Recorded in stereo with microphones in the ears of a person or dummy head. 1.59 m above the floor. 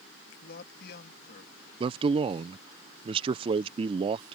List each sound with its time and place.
0.4 s a man speaking: 55° left (ahead or behind)
1.8 s a man speaking: 30° right (ahead or behind)